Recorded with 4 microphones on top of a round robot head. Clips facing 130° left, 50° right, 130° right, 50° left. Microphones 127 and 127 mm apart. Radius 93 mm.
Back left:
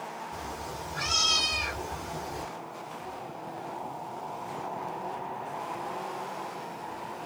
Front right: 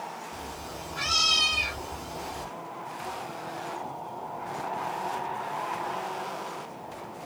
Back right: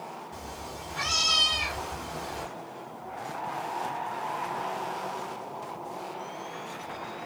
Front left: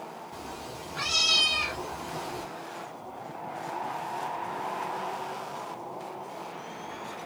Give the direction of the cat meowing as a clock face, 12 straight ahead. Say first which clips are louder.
Back left 1 dB, even; 8 o'clock.